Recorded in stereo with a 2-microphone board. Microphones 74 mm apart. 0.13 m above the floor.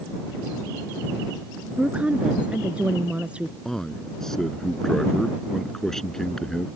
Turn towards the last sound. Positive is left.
turn(degrees=5)  # may be behind; listen again after turning